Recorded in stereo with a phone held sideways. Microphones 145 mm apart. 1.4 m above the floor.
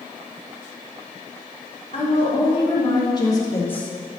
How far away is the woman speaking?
About 3.5 m.